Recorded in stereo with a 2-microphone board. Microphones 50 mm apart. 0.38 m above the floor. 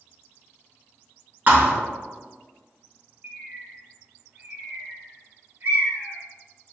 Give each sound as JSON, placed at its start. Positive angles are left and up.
{"t": 1.5, "sound": "a thud", "side_deg": -40, "distance_m": 0.9}
{"t": 3.2, "sound": "a bird", "side_deg": -45, "distance_m": 0.9}